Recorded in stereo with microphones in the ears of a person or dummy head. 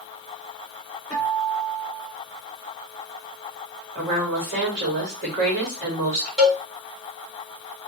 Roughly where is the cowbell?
Centre.